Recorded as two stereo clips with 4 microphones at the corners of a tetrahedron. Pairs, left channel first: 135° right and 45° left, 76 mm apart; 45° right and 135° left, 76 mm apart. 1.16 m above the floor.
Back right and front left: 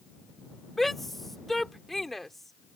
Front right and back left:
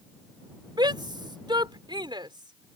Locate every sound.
0.8 s a shout: 140° left